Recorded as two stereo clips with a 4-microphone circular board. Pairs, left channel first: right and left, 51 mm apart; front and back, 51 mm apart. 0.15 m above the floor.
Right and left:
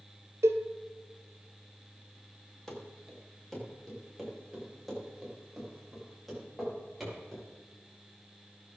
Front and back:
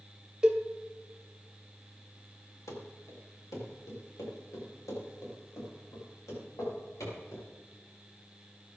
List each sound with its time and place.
0.4 s a cowbell: 105° left, 1.1 m
2.7 s running footsteps: 10° right, 4 m; by 7.4 s 5° left, 9 m